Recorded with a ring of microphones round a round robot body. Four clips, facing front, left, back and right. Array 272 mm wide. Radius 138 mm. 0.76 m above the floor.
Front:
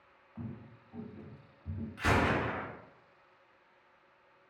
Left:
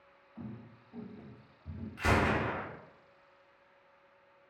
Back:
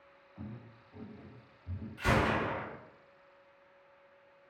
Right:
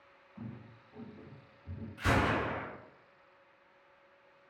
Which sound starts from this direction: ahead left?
A gunshot, at 2.0 s.